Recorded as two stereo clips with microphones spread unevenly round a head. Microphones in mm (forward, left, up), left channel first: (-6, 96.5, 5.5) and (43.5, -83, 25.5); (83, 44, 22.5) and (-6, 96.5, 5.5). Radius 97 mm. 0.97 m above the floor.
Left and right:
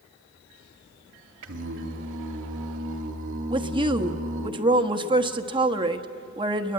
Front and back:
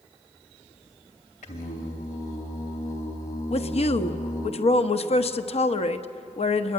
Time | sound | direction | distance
1.4 | singing | 55° right | 2.5 m
3.5 | a woman speaking | 10° right | 1.2 m